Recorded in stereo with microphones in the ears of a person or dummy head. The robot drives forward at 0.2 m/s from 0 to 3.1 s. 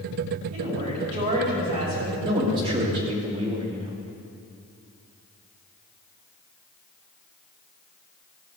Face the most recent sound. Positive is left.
turn(degrees=-25)  # may be behind; listen again after turning